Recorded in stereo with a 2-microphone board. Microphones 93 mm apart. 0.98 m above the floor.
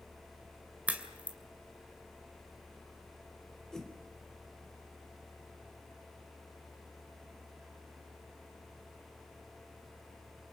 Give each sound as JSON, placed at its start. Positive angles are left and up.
{"t": 0.9, "sound": "a crack", "side_deg": -15, "distance_m": 2.5}
{"t": 3.7, "sound": "a whoosh", "side_deg": 5, "distance_m": 3.0}